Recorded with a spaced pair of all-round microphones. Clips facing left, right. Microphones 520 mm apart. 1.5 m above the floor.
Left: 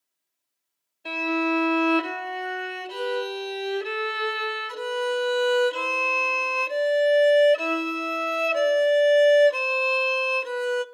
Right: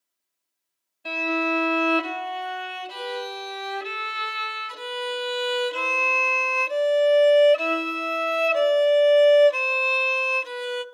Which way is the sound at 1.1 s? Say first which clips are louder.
Left 1 dB; 25° right (ahead or behind).